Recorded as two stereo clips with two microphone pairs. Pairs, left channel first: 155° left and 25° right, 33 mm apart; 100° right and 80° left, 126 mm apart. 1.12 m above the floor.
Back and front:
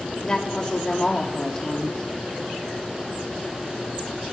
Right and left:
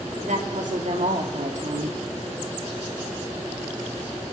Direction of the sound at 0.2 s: 90° left.